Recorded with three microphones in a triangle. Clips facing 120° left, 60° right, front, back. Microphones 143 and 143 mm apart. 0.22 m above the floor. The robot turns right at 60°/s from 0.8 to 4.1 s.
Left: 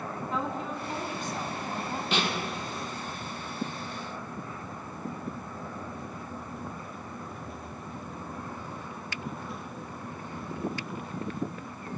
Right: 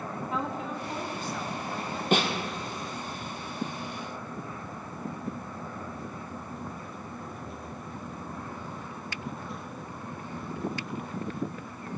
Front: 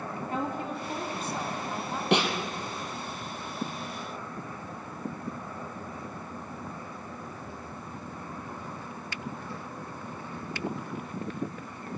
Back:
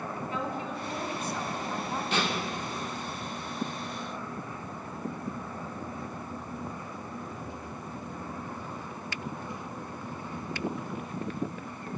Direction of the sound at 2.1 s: 20° right.